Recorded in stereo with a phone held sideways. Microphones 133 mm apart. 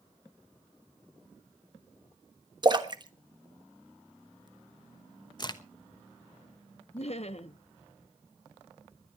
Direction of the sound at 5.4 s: 35° left (ahead or behind).